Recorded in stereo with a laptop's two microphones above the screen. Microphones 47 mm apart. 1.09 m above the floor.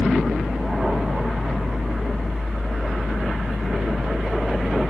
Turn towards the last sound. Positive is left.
turn(degrees=-10)  # may be behind; listen again after turning